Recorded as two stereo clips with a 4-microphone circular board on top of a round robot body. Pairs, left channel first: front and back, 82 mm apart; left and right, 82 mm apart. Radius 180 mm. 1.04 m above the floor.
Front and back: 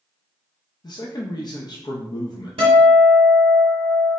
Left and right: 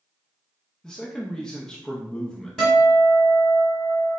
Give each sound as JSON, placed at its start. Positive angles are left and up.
{"t": 0.8, "sound": "a man speaking", "azimuth_deg": 10, "distance_m": 0.7}
{"t": 2.6, "sound": "a guitar", "azimuth_deg": 175, "distance_m": 0.8}